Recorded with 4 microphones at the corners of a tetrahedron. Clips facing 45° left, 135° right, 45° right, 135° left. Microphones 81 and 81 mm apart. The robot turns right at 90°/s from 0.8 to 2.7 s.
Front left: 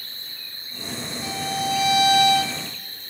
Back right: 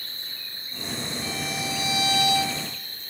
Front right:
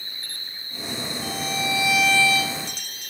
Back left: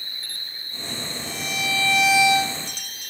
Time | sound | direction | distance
0.0 | an insect | 120° right | 7 m
1.2 | a violin | 25° right | 1.0 m